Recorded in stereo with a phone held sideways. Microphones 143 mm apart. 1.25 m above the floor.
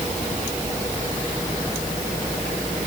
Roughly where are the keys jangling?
No keys jangling in this recording.